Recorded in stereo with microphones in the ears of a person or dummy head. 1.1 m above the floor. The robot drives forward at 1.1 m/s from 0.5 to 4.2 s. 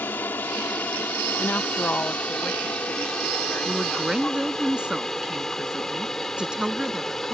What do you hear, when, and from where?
0.0 s an aircraft: 5° left (ahead or behind); by 7.4 s centre (ahead or behind)
1.4 s a woman speaking: 10° left (ahead or behind); by 4.7 s centre (ahead or behind)
3.6 s a woman speaking: 10° right (ahead or behind)